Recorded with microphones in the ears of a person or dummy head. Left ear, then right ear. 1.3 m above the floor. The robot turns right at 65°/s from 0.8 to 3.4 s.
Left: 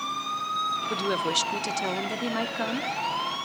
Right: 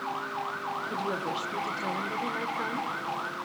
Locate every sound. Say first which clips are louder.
0.9 s a woman speaking: left 5 dB; 40° left, 0.8 m; by 2.9 s 170° left, 0.8 m